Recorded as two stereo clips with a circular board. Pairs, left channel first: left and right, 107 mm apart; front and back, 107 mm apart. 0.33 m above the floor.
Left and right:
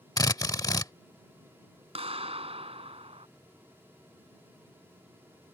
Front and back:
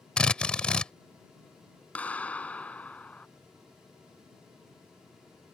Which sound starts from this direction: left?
A drill, at 0.2 s.